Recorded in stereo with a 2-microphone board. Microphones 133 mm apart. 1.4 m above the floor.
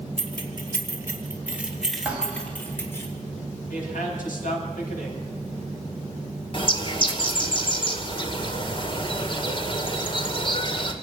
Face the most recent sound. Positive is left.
turn(degrees=40)  # may be behind; listen again after turning